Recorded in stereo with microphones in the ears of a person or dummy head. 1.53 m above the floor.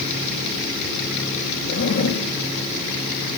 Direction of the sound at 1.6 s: 60° left (ahead or behind).